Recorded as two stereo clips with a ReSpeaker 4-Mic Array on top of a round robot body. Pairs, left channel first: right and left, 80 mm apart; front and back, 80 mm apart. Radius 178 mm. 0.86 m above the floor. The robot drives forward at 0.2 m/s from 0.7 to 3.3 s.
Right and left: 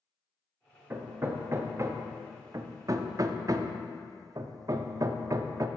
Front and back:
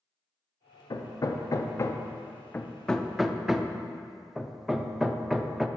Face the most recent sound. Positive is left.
turn(degrees=95)